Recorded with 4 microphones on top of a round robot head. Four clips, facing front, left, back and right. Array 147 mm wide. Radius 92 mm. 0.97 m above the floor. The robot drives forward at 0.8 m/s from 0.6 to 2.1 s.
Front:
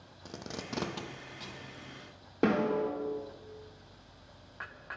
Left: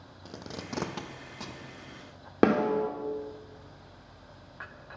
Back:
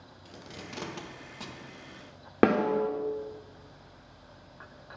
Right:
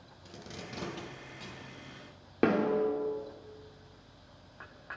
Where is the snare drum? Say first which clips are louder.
Left 3 dB, back 4 dB; 150° left, 0.7 m.